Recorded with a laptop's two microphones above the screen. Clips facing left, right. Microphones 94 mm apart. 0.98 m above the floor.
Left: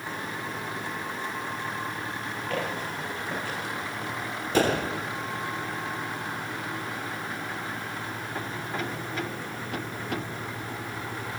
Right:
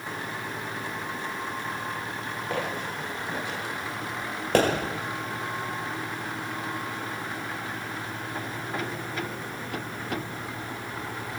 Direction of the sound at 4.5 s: 70° right (ahead or behind).